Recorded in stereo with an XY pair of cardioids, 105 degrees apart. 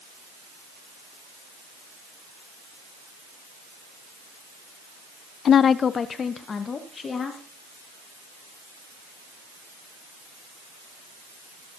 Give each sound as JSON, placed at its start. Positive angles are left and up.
{"t": 5.5, "sound": "a woman speaking", "azimuth_deg": 55, "distance_m": 0.6}